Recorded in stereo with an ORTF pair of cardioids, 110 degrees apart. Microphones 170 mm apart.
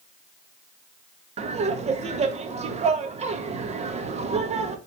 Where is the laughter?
40° right, 2.0 m.